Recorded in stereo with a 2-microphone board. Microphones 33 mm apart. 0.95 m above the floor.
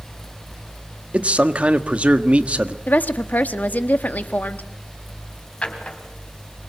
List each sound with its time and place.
1.1 s a man speaking: 40° right (ahead or behind), 1.4 m
2.9 s a woman speaking: 60° left (ahead or behind), 1.4 m
5.6 s a drawer: 35° left (ahead or behind), 3.5 m